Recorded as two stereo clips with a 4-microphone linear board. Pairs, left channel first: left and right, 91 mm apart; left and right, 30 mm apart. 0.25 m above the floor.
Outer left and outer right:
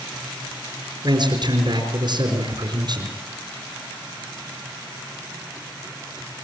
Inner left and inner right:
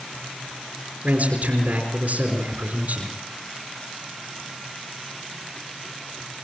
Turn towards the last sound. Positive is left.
turn(degrees=-55)  # may be behind; listen again after turning